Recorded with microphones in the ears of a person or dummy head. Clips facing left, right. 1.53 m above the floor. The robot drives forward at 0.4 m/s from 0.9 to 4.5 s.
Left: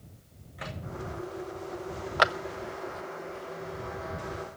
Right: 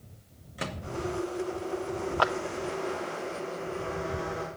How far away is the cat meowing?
No cat meowing in this recording.